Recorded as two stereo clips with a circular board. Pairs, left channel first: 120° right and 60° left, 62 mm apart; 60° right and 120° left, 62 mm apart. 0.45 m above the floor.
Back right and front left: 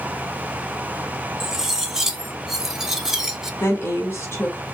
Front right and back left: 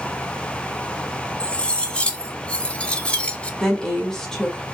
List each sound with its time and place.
1.4 s cutlery clinking: 15° right, 0.5 m
3.6 s a woman speaking: 140° right, 1.5 m